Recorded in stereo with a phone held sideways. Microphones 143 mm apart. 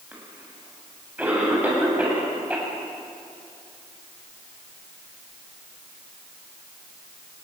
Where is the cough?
10° right (ahead or behind), 7.5 m.